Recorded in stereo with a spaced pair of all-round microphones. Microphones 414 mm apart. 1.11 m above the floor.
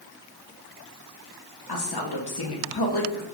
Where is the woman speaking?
60° left (ahead or behind), 0.8 m.